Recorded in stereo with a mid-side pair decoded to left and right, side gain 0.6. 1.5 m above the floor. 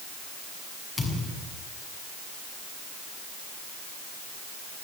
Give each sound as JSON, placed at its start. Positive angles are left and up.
{"t": 1.0, "sound": "a thud", "azimuth_deg": 25, "distance_m": 6.5}